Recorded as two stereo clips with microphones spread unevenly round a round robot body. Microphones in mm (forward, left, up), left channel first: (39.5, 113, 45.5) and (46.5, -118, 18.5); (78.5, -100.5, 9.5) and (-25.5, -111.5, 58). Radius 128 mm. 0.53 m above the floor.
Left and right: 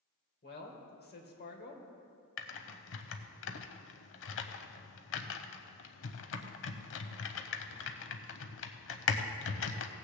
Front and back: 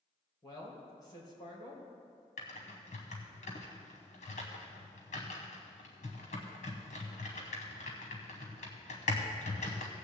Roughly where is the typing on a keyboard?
Ahead left.